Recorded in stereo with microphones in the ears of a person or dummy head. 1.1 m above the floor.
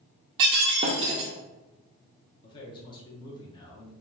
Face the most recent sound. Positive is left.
turn(degrees=25)  # may be behind; listen again after turning